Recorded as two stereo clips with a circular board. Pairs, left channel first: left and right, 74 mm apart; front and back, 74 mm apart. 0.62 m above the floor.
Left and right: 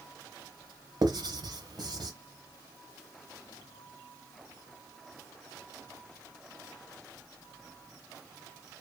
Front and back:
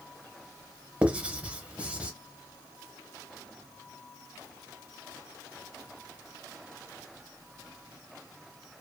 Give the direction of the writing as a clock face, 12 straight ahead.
3 o'clock.